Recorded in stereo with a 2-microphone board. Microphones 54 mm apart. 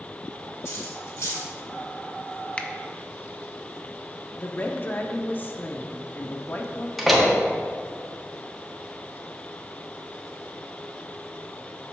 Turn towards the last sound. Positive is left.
turn(degrees=-5)  # may be behind; listen again after turning